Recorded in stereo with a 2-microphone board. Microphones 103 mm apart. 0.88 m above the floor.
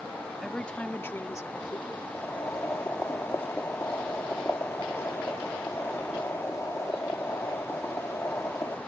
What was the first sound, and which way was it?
A woman speaking, centre (ahead or behind).